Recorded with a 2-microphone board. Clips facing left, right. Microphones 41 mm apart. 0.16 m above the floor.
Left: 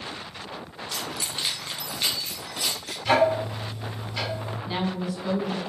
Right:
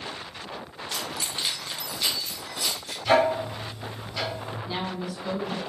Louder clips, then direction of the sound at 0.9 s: Even; 20° right (ahead or behind).